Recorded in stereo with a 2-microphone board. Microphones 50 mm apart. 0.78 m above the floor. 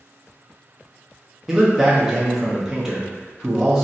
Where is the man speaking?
10° right (ahead or behind), 0.8 m.